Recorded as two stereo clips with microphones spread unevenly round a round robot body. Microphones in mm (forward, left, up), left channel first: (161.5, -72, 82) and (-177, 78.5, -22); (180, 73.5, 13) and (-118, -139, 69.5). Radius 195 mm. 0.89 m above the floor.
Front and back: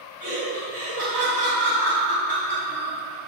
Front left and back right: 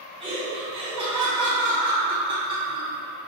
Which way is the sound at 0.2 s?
140° left.